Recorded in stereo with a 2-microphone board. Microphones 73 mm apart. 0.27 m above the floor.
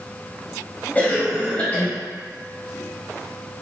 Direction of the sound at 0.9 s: 20° left (ahead or behind).